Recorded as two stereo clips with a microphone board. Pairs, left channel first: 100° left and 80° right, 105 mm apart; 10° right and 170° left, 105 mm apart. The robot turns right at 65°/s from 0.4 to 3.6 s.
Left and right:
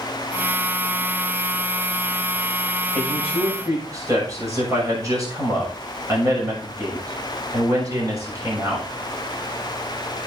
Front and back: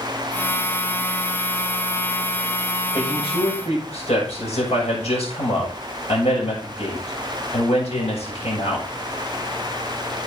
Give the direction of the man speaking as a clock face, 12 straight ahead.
2 o'clock.